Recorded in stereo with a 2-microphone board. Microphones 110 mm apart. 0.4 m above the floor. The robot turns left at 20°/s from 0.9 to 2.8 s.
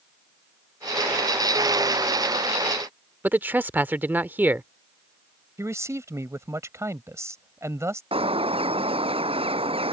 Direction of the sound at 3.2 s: 15° right (ahead or behind).